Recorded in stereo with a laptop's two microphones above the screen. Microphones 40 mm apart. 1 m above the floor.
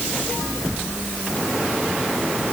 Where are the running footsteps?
I don't hear running footsteps.